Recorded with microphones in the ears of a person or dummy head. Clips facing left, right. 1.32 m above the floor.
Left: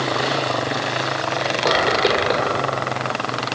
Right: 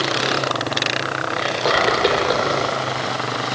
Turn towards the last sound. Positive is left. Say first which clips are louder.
# right 1 dB
turn(degrees=-5)  # may be behind; listen again after turning